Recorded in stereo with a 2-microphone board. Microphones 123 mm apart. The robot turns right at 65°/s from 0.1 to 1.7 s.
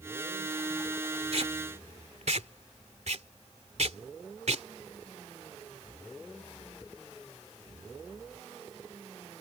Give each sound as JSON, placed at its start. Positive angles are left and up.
{"t": 1.3, "sound": "tape being pulled", "side_deg": -55}